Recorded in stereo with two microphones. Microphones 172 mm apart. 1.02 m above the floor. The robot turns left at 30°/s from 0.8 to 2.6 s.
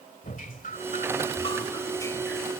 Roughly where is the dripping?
Ahead left.